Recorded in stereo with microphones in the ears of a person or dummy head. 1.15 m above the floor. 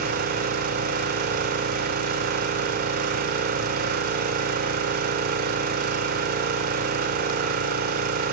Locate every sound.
0.0 s an engine running: 50° right (ahead or behind), 1.7 m